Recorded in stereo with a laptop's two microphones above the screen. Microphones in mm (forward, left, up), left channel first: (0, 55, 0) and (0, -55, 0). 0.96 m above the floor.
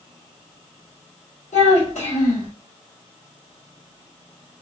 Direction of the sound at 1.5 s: 80° left.